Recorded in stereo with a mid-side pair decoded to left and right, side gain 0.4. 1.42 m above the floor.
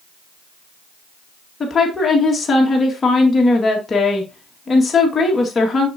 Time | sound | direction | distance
1.6 | a woman speaking | 35° left | 2 m